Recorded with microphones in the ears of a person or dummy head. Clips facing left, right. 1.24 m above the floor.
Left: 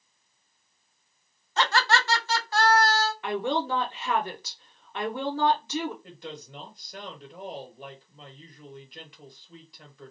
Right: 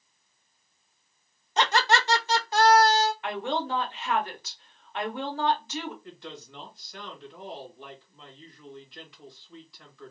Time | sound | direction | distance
1.6 | laughter | 15° right (ahead or behind) | 0.6 m
3.2 | a woman speaking | 70° left (ahead or behind) | 1.0 m
6.0 | a woman speaking | 30° left (ahead or behind) | 1.3 m